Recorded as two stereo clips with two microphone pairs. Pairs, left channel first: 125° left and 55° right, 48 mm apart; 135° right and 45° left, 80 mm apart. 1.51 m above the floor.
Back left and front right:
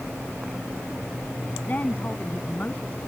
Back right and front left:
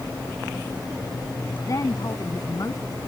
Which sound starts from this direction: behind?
A woman speaking, at 1.7 s.